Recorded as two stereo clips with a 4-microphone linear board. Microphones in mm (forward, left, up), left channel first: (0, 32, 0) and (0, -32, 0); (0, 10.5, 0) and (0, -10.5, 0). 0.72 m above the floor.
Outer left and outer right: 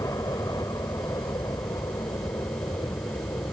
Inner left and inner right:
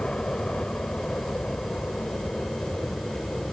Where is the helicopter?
65° left (ahead or behind).